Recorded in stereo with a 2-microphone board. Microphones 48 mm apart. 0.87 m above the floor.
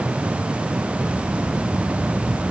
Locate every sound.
Only background noise.